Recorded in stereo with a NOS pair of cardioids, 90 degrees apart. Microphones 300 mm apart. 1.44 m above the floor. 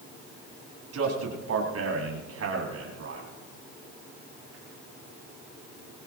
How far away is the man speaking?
About 9.5 m.